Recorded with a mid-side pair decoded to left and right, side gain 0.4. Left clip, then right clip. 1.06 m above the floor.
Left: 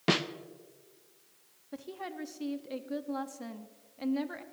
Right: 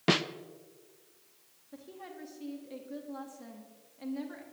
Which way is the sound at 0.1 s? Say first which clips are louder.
Right 1 dB; 10° right.